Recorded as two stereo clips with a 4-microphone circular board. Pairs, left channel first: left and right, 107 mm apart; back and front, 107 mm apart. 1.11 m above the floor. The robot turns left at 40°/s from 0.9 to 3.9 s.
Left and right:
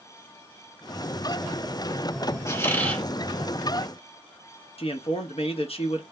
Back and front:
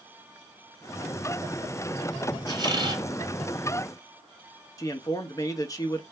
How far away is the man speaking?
About 0.9 m.